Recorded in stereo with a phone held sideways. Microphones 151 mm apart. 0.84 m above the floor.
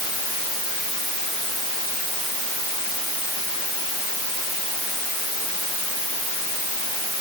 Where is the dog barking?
I don't hear a dog barking.